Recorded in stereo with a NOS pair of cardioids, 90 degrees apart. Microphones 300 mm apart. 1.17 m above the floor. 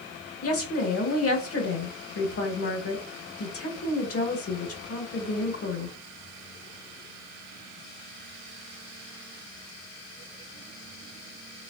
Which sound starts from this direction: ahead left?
A woman speaking, at 0.4 s.